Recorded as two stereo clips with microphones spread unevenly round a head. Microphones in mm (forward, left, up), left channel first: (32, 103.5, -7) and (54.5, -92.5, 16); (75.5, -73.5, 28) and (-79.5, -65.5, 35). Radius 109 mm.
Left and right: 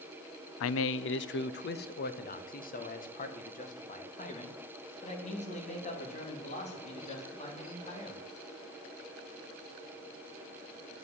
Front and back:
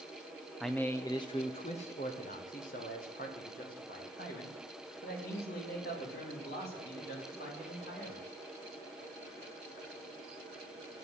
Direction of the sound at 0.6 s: 90° left.